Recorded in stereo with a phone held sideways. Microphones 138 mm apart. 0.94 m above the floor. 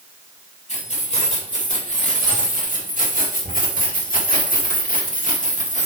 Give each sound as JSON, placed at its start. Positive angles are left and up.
{"t": 0.7, "sound": "keys jangling", "side_deg": 55, "distance_m": 3.5}